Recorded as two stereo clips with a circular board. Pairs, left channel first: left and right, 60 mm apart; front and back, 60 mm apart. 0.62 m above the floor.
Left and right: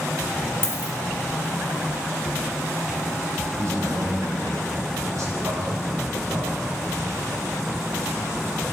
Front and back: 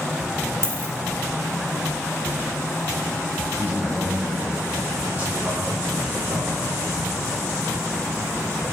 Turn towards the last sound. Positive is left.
turn(degrees=-120)